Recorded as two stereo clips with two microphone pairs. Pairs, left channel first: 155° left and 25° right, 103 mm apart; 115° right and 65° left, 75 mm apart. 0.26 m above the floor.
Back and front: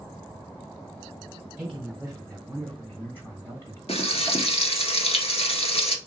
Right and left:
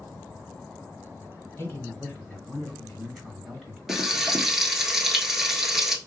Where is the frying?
155° left, 1.0 m.